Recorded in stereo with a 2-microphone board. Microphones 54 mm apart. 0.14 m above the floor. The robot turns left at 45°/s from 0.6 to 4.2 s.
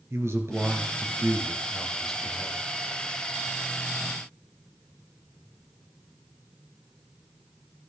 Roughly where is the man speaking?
Right.